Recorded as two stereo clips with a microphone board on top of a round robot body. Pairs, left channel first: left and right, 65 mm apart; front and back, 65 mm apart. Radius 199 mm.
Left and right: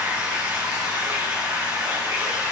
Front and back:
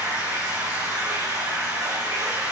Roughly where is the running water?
Behind right.